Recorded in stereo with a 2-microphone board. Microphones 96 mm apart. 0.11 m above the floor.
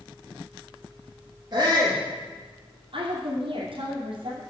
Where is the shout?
45° right (ahead or behind), 3 m.